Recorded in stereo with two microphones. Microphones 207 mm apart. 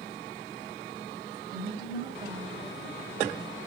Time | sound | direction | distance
1.5 | a woman speaking | 20° right (ahead or behind) | 1.2 m